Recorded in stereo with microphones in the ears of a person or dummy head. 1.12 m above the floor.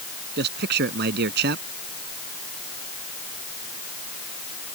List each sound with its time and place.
0.4 s a man speaking: 55° right (ahead or behind)